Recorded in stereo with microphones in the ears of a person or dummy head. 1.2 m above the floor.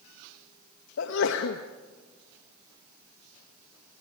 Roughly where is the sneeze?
Left.